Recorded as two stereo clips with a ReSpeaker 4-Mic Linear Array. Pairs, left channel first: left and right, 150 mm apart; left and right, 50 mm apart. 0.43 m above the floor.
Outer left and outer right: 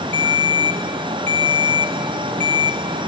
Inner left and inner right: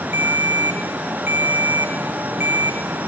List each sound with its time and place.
0.1 s a ringtone: 45° right (ahead or behind), 1.2 m